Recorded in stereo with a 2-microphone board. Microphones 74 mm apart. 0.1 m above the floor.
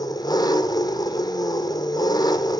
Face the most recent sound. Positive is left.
turn(degrees=60)  # may be behind; listen again after turning